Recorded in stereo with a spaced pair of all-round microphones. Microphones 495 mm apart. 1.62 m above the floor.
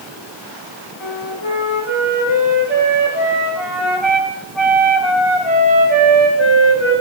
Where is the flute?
70° left (ahead or behind), 5 m.